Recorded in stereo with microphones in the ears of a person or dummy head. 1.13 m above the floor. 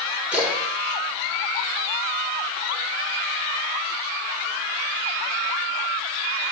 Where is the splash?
5° right (ahead or behind), 1.7 m.